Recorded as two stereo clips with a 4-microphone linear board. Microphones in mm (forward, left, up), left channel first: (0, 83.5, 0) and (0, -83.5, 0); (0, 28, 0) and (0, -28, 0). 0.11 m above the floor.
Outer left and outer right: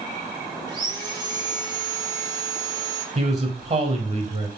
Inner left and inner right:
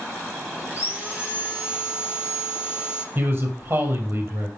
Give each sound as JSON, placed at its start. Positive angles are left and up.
{"t": 0.7, "sound": "sawing", "side_deg": -25, "distance_m": 3.0}
{"t": 3.1, "sound": "a man speaking", "side_deg": -45, "distance_m": 2.5}